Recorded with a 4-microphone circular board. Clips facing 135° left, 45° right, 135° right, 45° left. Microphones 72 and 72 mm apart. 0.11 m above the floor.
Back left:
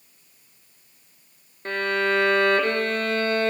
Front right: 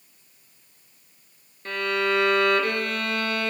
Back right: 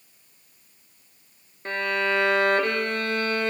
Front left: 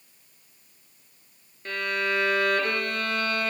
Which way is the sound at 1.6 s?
175° left.